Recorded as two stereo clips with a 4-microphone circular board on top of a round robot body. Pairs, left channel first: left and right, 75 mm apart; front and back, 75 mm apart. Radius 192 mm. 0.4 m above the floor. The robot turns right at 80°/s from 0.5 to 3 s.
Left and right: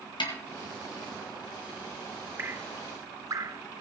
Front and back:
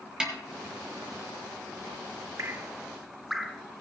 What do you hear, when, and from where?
0.2 s a snare drum: 100° left, 1.9 m
2.4 s dripping: 145° right, 1.0 m; by 3.6 s 95° right, 1.0 m